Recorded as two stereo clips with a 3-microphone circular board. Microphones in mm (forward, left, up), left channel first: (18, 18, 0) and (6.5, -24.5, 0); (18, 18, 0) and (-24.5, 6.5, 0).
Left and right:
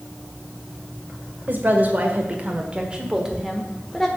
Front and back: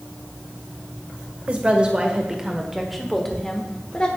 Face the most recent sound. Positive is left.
turn(degrees=5)